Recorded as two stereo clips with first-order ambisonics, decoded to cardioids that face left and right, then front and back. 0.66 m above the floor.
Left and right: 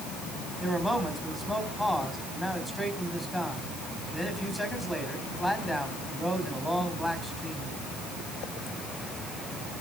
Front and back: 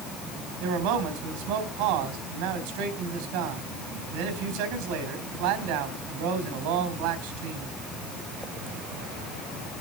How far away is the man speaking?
About 4 m.